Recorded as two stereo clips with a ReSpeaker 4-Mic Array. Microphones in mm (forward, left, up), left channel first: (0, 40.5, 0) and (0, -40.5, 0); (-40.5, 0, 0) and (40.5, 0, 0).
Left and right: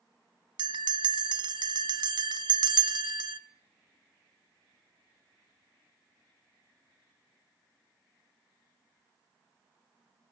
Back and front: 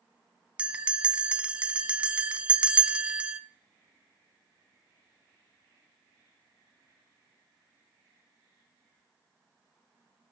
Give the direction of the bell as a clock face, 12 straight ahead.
2 o'clock.